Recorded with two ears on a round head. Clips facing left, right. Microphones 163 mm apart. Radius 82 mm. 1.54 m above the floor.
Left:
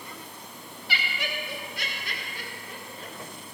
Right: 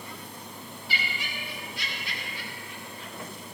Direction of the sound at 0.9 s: 55° left (ahead or behind).